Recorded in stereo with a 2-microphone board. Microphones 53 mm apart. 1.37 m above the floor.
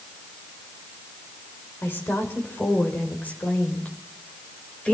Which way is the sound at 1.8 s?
45° left (ahead or behind).